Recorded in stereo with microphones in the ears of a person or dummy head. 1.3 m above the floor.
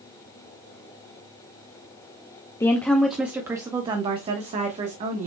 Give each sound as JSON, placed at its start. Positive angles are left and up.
{"t": 2.6, "sound": "a woman speaking", "side_deg": 15, "distance_m": 0.7}